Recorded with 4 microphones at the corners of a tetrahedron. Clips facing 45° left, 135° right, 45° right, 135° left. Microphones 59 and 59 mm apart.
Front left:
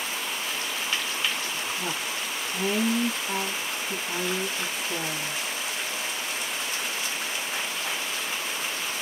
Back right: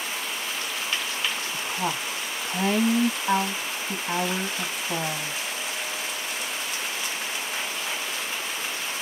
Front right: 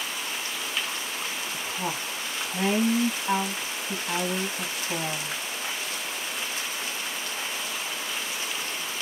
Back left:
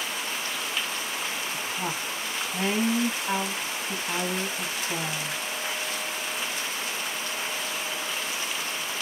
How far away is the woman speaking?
About 0.8 m.